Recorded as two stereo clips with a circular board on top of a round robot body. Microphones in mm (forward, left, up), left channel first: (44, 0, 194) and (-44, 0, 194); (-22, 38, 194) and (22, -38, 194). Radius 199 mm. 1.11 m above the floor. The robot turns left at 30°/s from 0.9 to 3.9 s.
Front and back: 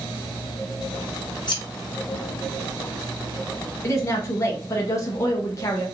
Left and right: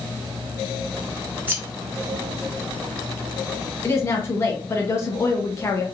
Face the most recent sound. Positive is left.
turn(degrees=60)